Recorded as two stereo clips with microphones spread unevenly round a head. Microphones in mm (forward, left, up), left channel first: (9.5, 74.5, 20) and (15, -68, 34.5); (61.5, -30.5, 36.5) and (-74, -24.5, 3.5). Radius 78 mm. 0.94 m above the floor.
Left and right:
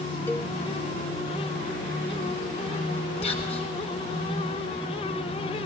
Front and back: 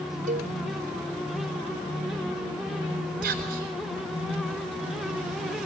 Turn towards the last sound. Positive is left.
turn(degrees=145)